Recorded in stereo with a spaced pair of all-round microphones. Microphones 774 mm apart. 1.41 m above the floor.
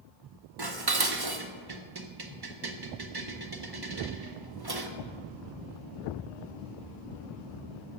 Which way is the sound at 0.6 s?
30° right (ahead or behind).